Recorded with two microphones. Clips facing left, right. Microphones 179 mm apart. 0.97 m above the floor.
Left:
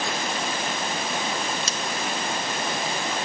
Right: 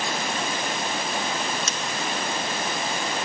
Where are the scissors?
35° left (ahead or behind), 0.6 m.